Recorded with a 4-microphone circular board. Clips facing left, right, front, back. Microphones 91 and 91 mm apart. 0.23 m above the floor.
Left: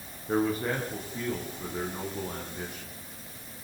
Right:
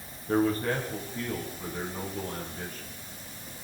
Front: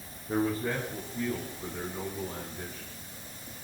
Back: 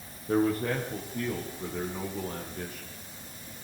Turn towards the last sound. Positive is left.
turn(degrees=165)